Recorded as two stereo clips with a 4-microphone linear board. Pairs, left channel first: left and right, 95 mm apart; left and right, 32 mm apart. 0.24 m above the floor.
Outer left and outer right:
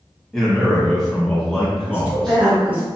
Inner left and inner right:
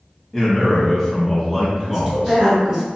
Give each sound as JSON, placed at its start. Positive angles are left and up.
{"t": 0.3, "sound": "a man speaking", "side_deg": 5, "distance_m": 1.2}
{"t": 1.9, "sound": "a woman speaking", "side_deg": -20, "distance_m": 1.3}